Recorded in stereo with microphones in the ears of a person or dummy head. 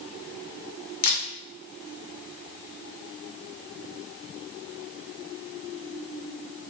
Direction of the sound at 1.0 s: 50° left (ahead or behind).